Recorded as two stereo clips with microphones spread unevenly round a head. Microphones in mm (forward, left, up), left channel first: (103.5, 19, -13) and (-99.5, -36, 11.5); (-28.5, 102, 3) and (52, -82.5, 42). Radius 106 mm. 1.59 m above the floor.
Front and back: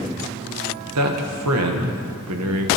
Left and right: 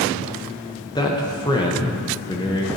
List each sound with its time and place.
0.9 s a man speaking: 175° right, 1.0 m